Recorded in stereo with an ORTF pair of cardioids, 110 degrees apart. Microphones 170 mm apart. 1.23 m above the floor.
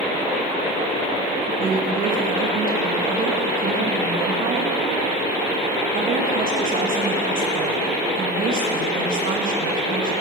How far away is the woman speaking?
About 1.7 m.